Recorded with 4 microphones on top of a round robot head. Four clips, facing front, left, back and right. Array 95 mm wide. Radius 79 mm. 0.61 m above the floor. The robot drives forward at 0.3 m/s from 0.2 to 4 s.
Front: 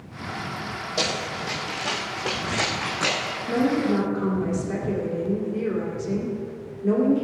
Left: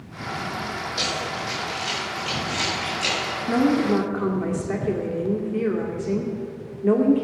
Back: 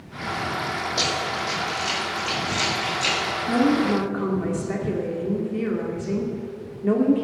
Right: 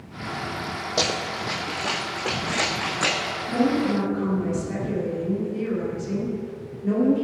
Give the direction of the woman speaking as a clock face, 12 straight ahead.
8 o'clock.